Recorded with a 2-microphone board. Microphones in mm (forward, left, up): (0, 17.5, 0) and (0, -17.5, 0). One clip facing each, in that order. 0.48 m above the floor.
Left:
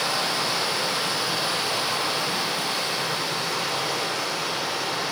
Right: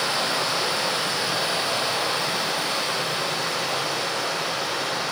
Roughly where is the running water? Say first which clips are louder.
Right 1 dB; right.